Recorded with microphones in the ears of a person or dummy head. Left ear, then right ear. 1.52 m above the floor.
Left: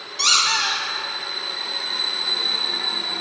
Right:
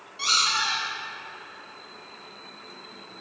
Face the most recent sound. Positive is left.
turn(degrees=35)  # may be behind; listen again after turning